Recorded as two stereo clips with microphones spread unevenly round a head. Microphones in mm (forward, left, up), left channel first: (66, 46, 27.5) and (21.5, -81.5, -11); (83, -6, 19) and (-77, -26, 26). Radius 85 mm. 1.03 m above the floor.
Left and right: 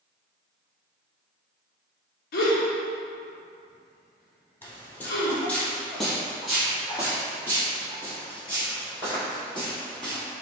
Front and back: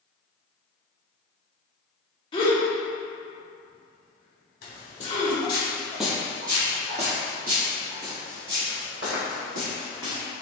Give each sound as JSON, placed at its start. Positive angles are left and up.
{"t": 2.3, "sound": "a gasp", "azimuth_deg": 70, "distance_m": 0.7}
{"t": 4.6, "sound": "footsteps", "azimuth_deg": 20, "distance_m": 1.4}